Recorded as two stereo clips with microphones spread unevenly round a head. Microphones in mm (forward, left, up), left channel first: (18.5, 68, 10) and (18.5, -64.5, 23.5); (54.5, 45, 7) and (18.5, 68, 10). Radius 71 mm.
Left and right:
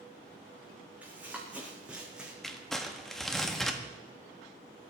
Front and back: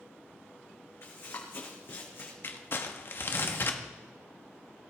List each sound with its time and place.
1.0 s running footsteps: 15° right, 5.5 m; by 2.3 s 5° right, 4.5 m
2.4 s crumpling: straight ahead, 1.6 m